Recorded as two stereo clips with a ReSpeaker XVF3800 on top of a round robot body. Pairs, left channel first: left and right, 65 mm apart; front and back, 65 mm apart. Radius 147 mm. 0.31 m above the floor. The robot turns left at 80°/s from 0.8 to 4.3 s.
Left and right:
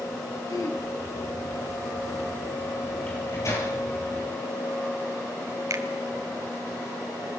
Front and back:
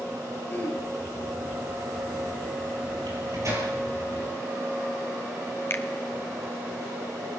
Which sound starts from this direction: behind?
A microwave, at 3.1 s.